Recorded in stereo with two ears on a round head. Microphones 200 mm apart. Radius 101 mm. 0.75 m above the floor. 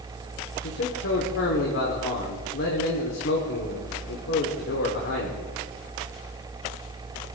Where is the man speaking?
55° left (ahead or behind), 1.9 m.